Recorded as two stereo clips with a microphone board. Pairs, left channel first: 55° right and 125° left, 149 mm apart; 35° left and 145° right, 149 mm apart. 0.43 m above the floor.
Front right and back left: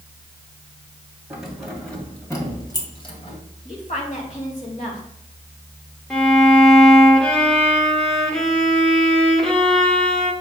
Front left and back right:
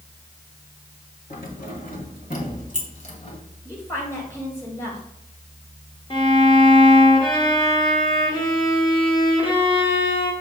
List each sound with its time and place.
1.3 s keys jangling: 40° left, 2 m; by 3.4 s 10° right, 1.9 m
3.6 s a woman speaking: 35° right, 2.5 m
6.1 s a violin: 30° left, 1.4 m